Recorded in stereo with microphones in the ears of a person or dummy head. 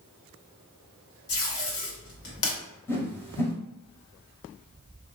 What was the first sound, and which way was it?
Tape being pulled, 60° left (ahead or behind).